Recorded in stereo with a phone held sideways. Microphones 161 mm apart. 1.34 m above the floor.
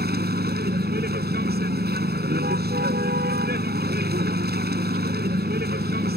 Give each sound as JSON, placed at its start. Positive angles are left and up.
{"t": 0.0, "sound": "a vehicle", "side_deg": -85}